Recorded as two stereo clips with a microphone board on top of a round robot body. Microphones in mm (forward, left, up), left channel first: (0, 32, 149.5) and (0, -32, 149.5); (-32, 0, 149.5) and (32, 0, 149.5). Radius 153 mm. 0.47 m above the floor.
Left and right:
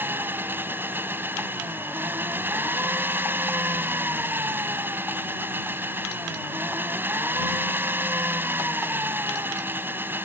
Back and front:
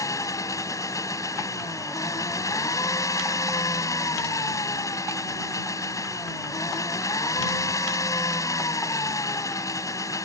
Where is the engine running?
145° right.